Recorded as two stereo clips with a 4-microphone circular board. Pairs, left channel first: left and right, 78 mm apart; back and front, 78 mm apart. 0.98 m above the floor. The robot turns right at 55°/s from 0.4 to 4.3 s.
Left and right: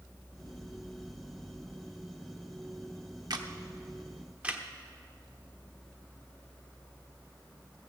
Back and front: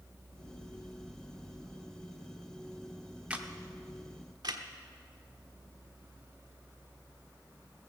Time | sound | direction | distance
3.3 | a camera shutter | 75° right | 0.9 m